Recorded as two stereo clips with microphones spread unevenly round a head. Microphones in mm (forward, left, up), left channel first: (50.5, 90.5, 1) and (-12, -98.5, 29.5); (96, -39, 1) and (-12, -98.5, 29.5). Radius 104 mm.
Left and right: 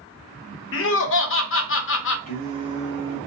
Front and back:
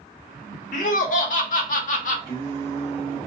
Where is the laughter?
50° left, 0.7 m.